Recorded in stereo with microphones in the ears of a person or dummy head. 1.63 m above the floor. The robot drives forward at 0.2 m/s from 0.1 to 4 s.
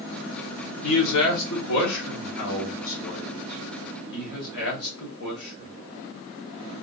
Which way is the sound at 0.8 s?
70° left (ahead or behind).